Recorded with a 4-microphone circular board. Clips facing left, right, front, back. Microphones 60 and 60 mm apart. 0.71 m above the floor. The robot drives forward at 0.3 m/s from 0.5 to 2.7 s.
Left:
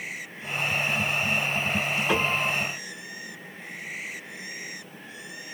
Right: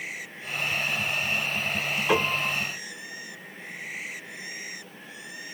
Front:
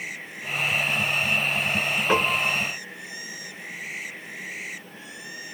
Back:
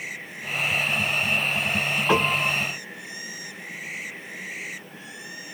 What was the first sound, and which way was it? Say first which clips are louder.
A piano: right 2 dB, back 1 dB; 165° right.